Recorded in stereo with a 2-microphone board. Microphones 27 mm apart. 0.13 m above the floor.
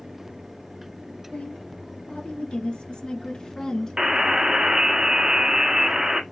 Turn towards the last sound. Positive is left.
turn(degrees=-25)  # may be behind; listen again after turning